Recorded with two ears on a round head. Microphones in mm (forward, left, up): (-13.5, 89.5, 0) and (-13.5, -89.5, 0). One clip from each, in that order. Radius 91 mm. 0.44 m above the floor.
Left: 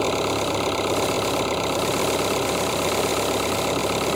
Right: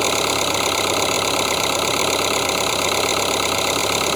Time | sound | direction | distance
0.0 | an engine running | 40° right (ahead or behind) | ?